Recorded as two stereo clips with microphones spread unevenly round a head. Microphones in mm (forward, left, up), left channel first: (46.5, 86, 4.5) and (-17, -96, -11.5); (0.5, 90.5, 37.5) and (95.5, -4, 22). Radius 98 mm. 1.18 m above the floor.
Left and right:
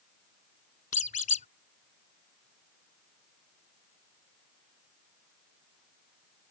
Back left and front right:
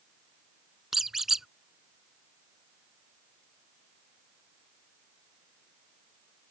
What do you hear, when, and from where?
0.9 s a squeak: 50° left